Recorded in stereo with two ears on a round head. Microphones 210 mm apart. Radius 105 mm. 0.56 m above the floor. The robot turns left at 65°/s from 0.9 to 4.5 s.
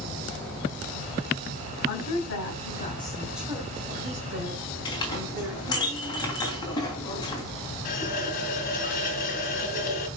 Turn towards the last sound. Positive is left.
turn(degrees=35)  # may be behind; listen again after turning